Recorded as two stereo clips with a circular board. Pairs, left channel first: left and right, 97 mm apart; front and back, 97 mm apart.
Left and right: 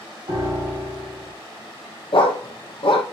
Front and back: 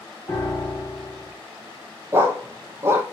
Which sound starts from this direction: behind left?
A dog barking, at 2.1 s.